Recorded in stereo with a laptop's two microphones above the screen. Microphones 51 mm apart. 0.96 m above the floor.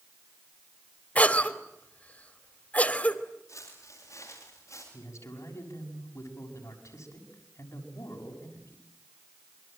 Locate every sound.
1.1 s a cough: 25° left (ahead or behind), 3 m
3.5 s footsteps: 85° left, 9.5 m
4.9 s a man speaking: 80° left, 6.5 m